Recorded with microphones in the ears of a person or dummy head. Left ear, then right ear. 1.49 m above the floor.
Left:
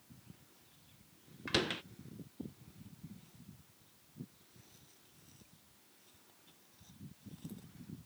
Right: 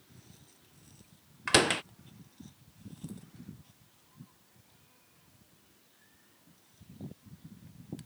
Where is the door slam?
30° right (ahead or behind).